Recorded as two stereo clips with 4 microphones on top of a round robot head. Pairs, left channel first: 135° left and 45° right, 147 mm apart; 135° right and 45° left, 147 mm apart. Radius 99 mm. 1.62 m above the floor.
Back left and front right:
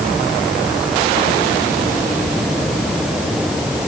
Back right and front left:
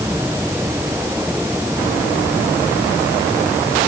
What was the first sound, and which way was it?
Only background noise.